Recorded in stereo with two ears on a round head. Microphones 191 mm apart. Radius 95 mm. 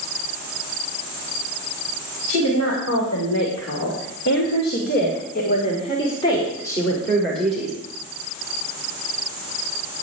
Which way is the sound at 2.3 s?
75° left (ahead or behind).